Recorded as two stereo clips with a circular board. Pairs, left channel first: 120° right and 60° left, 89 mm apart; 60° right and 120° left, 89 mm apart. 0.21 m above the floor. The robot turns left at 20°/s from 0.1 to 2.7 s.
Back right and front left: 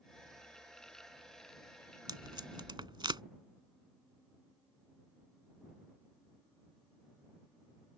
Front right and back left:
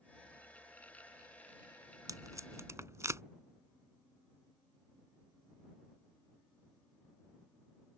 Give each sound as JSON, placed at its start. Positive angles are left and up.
{"t": 2.1, "sound": "tape being pulled", "azimuth_deg": 85}